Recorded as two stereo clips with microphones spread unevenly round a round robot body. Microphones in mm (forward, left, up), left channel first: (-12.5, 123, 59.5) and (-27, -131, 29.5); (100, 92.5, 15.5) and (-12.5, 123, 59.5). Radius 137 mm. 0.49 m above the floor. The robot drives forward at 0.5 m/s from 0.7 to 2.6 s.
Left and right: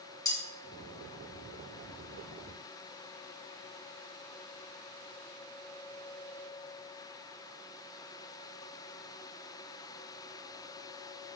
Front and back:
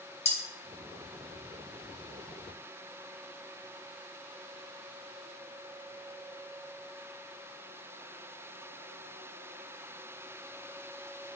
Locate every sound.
0.2 s cutlery clinking: 10° left, 1.6 m